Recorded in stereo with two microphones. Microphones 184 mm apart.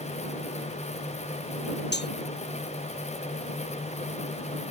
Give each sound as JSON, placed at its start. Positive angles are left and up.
{"t": 1.9, "sound": "cutlery clinking", "side_deg": 70}